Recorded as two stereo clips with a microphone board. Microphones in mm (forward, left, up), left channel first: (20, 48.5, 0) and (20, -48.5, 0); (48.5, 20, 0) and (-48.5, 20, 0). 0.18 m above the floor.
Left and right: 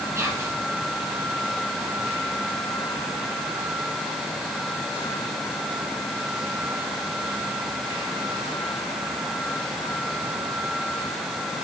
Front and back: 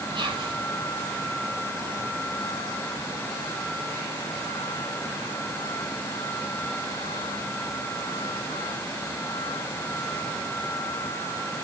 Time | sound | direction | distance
0.1 | whispering | 150° right | 5 m